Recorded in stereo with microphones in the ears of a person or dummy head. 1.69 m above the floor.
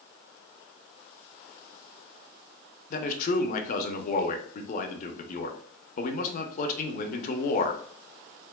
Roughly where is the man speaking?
Left.